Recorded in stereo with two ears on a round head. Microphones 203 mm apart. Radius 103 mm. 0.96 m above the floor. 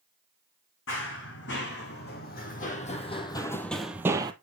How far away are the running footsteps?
About 3 m.